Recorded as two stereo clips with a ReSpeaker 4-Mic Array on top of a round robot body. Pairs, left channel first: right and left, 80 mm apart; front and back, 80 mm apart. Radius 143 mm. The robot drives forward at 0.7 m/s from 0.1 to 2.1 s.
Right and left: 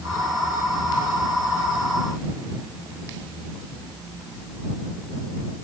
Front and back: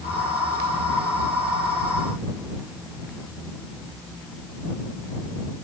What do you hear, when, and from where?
Only background noise.